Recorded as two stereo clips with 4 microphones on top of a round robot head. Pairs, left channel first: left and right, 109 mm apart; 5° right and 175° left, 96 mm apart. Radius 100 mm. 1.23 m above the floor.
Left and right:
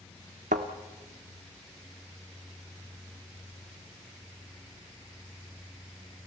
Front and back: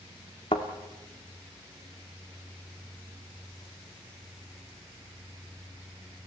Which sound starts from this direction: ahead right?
A thud, at 0.5 s.